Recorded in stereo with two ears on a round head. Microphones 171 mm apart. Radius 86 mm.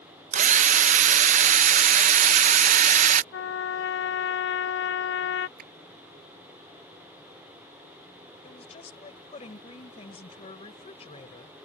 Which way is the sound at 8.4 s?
35° left (ahead or behind).